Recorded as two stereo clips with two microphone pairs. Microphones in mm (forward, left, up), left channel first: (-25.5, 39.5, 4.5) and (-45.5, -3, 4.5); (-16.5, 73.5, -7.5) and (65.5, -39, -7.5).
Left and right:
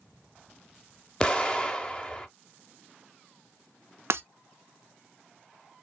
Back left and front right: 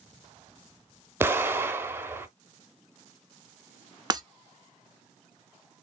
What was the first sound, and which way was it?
An explosion, 10° left.